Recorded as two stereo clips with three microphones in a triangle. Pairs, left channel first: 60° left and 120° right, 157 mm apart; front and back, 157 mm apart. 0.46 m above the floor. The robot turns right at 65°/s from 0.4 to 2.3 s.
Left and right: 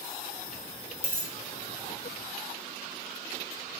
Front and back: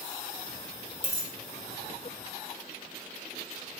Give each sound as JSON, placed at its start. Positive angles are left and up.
{"t": 1.0, "sound": "a dropped coin", "azimuth_deg": 35, "distance_m": 1.0}